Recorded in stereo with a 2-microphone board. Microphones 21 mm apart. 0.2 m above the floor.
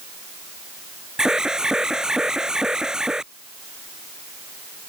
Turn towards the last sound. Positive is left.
turn(degrees=-35)  # may be behind; listen again after turning